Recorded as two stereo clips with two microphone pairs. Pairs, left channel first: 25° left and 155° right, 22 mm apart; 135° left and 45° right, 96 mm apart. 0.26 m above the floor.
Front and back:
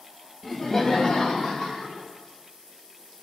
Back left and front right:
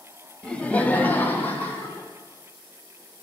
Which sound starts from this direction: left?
Laughter, at 0.4 s.